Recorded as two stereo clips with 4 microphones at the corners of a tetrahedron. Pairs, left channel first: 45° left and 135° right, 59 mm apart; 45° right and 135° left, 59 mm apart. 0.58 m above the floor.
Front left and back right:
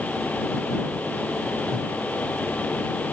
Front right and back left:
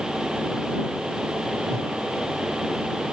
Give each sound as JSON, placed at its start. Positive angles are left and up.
{"t": 1.7, "sound": "a whoosh", "azimuth_deg": 120}